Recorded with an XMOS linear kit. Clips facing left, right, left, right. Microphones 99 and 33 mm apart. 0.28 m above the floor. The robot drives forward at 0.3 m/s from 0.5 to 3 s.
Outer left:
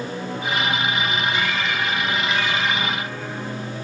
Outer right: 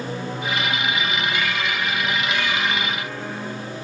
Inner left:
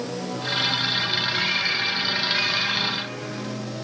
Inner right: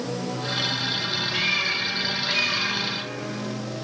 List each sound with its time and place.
1.3 s a cat meowing: 70° right (ahead or behind), 4 m; by 2.8 s 75° right (ahead or behind), 4 m